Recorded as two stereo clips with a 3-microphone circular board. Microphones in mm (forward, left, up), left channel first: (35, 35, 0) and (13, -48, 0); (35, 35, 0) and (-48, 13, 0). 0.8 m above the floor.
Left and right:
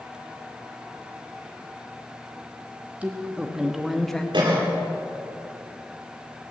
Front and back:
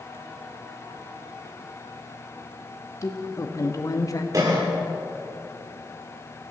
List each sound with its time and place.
3.0 s a woman speaking: 30° right, 1.5 m; by 4.2 s 5° right, 0.9 m
4.3 s a cough: 120° right, 2.5 m